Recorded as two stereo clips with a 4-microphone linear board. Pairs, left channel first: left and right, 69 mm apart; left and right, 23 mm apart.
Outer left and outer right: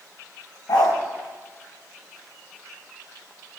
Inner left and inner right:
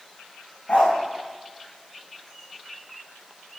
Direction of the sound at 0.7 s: 75° left (ahead or behind).